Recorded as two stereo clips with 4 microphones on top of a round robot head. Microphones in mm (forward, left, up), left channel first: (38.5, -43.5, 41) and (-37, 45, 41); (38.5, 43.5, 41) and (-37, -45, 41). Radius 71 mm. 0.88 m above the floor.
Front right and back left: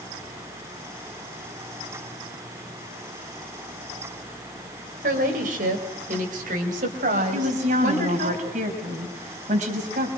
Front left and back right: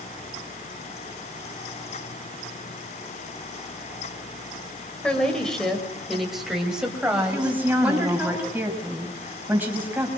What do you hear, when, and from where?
5.0 s a woman speaking: 130° left, 4 m; by 8.3 s 155° left, 5.5 m
7.3 s a woman speaking: 155° left, 5 m